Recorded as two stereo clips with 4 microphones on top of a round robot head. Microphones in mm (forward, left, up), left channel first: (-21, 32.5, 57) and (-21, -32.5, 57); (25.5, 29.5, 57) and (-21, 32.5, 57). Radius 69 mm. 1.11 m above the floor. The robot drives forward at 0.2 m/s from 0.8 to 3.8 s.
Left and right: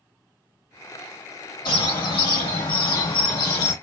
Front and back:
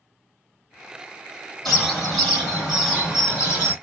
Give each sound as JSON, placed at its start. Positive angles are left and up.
{"t": 1.6, "sound": "a bird", "azimuth_deg": 80, "distance_m": 1.5}